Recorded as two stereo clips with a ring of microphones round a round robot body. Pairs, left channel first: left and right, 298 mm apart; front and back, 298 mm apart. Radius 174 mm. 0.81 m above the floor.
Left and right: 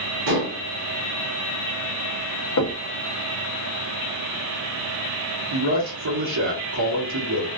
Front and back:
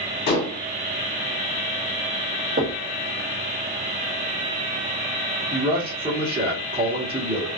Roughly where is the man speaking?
Right.